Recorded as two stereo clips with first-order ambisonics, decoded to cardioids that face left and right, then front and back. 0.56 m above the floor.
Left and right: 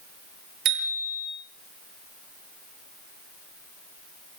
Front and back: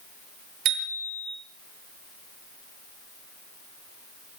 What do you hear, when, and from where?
0.7 s a bicycle bell: 135° right, 7 m